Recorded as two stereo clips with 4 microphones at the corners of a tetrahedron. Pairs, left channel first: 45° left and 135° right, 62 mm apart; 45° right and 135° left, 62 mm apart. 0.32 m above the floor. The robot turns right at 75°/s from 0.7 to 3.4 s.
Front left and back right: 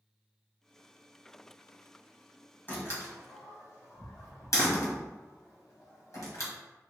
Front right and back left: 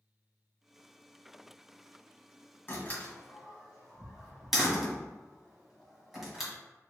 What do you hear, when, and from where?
2.7 s a door slam: 5° right, 1.7 m; by 6.5 s 50° left, 1.7 m